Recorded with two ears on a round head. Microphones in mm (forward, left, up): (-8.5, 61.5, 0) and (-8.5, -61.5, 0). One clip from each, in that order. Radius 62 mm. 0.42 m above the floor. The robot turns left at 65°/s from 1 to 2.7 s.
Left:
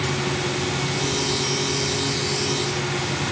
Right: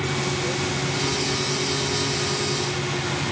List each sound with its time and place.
Only background noise.